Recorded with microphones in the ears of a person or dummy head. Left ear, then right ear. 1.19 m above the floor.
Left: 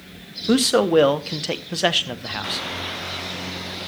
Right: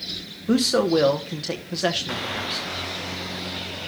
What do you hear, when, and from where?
0.5 s a man speaking: 25° left (ahead or behind), 0.8 m